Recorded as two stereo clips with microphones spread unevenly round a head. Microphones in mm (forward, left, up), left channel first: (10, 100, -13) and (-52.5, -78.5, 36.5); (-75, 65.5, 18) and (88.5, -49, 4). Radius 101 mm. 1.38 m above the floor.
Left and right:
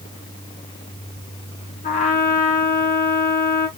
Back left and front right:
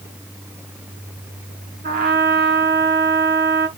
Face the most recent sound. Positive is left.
turn(degrees=15)